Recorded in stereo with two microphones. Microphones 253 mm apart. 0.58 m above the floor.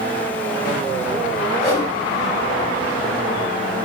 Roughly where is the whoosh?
Left.